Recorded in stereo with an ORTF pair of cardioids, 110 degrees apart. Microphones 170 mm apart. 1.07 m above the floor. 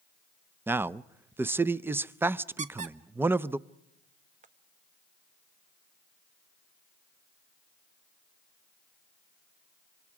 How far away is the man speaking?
About 0.5 m.